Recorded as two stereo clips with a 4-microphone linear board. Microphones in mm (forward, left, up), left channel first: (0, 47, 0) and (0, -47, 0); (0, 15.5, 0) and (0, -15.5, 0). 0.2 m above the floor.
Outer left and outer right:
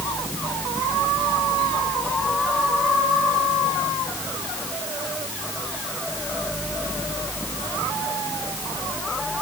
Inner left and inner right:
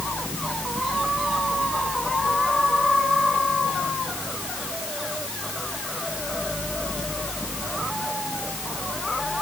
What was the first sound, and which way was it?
Only background noise.